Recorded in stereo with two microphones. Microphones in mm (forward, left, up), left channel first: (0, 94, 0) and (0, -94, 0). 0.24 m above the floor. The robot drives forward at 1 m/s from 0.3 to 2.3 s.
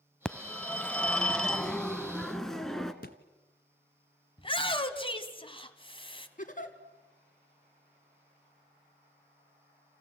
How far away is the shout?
About 1.7 m.